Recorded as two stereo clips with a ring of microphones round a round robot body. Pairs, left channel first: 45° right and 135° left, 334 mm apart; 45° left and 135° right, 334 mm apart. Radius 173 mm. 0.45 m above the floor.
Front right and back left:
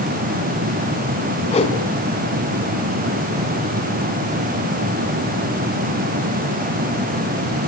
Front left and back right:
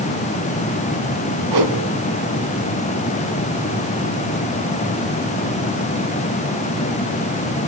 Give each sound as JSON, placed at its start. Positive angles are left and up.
{"t": 1.5, "sound": "a whoosh", "azimuth_deg": -115, "distance_m": 3.5}